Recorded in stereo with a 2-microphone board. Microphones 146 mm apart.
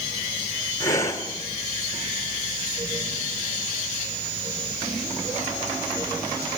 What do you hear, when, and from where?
0.8 s breathing: 20° left (ahead or behind), 2.5 m